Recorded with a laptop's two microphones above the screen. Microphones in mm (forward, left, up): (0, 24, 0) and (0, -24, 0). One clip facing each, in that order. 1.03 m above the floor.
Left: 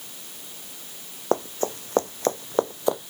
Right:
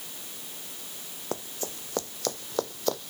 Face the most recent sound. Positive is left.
turn(degrees=15)  # may be behind; listen again after turning